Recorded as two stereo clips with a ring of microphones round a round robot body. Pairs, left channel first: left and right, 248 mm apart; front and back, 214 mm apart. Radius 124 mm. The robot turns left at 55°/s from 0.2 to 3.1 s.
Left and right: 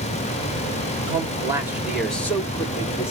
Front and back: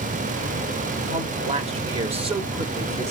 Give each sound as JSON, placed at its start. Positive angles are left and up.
{"t": 1.1, "sound": "a man speaking", "azimuth_deg": -130, "distance_m": 1.1}